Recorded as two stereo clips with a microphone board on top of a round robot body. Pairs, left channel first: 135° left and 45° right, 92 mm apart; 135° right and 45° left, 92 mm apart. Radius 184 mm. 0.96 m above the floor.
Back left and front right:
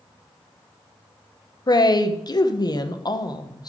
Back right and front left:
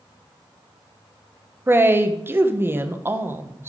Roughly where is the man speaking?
Left.